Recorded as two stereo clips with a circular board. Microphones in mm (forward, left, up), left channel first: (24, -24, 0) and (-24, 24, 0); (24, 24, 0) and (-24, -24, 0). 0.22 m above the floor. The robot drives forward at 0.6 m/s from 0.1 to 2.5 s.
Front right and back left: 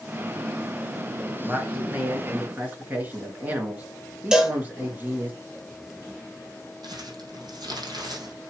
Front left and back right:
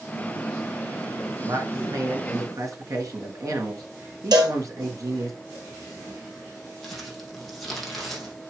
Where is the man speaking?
160° right, 2.5 m; by 5.3 s 165° right, 3 m.